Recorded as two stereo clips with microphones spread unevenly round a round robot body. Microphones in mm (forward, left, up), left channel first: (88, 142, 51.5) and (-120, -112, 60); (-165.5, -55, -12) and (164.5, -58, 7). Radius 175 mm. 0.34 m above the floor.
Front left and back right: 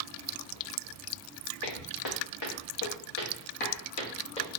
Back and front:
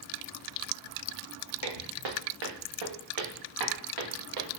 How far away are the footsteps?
About 1.7 m.